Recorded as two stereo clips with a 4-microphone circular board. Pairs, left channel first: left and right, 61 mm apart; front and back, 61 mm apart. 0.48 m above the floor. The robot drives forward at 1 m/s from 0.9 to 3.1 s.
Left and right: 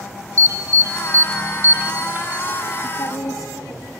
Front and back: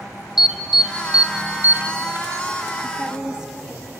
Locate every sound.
0.4 s an alarm: 100° right, 1.3 m; by 2.5 s 150° right, 2 m
2.8 s a woman speaking: 95° left, 2.5 m; by 3.9 s 100° left, 3 m